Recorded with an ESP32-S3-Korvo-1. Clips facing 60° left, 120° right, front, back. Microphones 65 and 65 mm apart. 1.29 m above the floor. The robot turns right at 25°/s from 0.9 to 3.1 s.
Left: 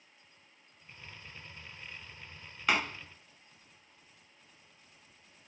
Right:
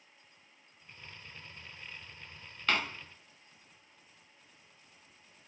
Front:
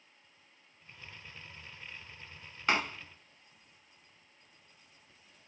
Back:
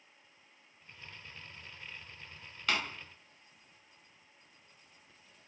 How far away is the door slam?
About 0.5 m.